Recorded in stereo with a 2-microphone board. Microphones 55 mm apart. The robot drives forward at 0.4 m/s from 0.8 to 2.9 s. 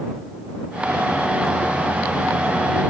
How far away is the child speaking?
I don't hear a child speaking.